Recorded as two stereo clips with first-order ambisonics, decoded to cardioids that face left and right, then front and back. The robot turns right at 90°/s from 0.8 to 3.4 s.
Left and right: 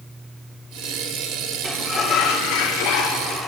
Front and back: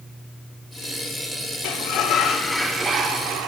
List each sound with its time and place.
1.6 s a sliding door: straight ahead, 1.2 m; by 3.5 s 160° left, 1.2 m